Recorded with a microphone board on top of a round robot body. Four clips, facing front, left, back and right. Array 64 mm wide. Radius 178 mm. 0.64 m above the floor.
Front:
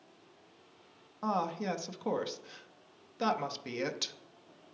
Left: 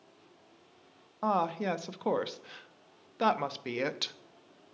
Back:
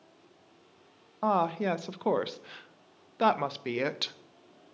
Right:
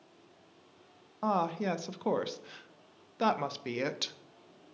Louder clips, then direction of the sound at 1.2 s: Left 1 dB, back 6 dB; 165° left.